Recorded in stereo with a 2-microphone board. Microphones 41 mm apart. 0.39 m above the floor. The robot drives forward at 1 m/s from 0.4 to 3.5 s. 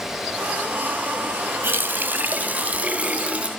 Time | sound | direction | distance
1.6 | a running tap | 55° right (ahead or behind) | 1.6 m